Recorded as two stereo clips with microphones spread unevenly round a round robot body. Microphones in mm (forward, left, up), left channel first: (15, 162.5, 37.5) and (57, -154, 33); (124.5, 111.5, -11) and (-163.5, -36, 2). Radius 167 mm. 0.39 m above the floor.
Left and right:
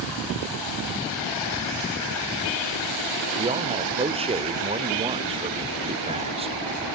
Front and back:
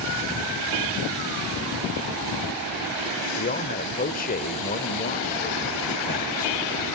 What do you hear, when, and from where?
3.4 s a man speaking: 20° right, 1.1 m